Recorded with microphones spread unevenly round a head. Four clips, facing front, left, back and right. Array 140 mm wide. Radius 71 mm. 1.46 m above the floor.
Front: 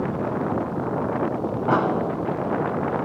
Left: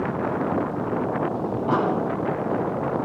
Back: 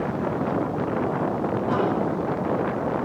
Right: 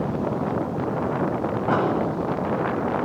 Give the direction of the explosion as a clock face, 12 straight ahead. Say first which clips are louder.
Even, front 4 dB; 1 o'clock.